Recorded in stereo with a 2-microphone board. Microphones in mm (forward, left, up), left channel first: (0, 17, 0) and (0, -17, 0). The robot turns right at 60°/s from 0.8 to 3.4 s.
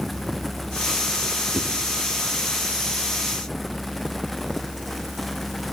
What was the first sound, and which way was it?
A whoosh, 55° left (ahead or behind).